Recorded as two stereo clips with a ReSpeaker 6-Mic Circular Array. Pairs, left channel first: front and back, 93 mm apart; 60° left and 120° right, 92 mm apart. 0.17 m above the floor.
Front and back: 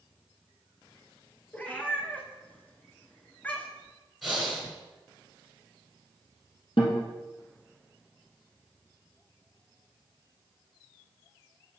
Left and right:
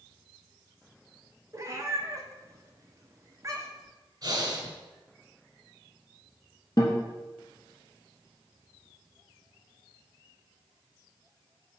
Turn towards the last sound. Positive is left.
turn(degrees=10)